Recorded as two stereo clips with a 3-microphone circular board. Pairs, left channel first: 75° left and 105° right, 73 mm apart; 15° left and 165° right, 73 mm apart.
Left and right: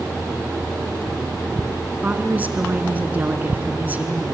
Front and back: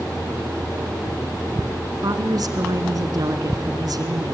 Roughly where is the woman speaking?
Behind.